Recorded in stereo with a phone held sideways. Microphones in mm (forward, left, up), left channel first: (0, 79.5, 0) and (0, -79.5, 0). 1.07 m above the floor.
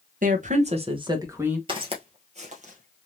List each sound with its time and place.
0.2 s a woman speaking: 55° right (ahead or behind), 1.2 m; by 1.6 s 10° right (ahead or behind), 1.4 m
1.7 s footsteps: 30° right (ahead or behind), 1.4 m; by 3.1 s 55° right (ahead or behind), 1.9 m